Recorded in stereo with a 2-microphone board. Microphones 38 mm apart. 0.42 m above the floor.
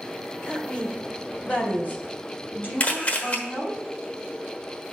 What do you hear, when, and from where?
0.4 s a woman speaking: 25° left (ahead or behind), 1.4 m; by 3.8 s 50° left (ahead or behind), 3 m
2.8 s a camera shutter: 35° left (ahead or behind), 1.3 m